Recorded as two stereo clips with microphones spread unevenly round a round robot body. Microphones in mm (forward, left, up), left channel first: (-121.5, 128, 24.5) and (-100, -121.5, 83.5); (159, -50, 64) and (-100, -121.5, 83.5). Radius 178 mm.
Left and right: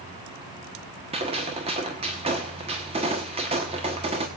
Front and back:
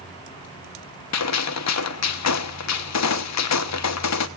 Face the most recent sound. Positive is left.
turn(degrees=-10)